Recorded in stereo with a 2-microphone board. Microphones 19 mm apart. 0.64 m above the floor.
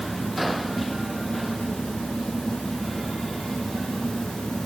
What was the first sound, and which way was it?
Only background noise.